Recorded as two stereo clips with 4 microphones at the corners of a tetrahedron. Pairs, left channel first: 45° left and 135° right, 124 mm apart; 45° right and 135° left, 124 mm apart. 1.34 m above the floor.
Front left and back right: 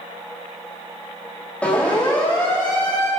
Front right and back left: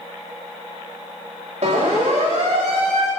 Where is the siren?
125° left, 4.5 m; by 3.1 s 120° left, 7 m.